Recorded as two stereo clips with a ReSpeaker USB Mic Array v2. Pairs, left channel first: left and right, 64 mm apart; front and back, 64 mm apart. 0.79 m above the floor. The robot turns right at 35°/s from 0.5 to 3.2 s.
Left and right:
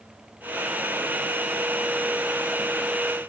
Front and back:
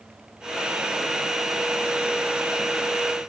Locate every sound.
Only background noise.